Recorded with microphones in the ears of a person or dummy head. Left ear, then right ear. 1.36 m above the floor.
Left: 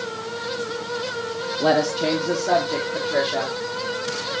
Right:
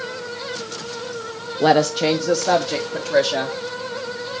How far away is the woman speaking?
About 0.5 m.